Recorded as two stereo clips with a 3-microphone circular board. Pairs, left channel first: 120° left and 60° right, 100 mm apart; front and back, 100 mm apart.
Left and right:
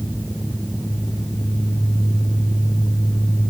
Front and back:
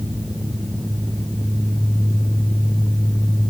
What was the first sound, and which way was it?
Only background noise.